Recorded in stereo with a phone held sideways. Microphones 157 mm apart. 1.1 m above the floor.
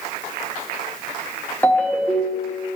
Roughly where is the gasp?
I don't hear a gasp.